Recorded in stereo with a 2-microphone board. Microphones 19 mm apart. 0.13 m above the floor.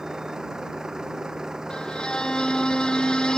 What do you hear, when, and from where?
0.0 s a vehicle: 35° right (ahead or behind)
1.7 s a violin: 45° left (ahead or behind)